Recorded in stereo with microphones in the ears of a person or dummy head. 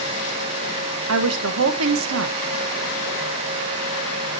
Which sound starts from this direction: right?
A woman speaking, at 1.1 s.